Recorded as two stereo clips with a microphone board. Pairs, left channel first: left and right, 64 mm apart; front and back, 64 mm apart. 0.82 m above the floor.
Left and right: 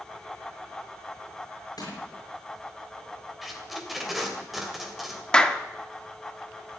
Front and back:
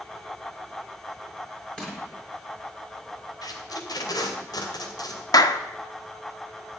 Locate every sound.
1.8 s crushing: 80° left, 7 m
3.4 s tape being pulled: straight ahead, 3 m
5.3 s a clap: 15° left, 1.1 m